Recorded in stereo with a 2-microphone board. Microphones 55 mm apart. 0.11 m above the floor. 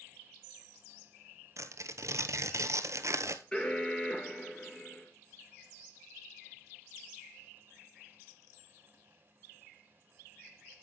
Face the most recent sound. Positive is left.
turn(degrees=15)  # may be behind; listen again after turning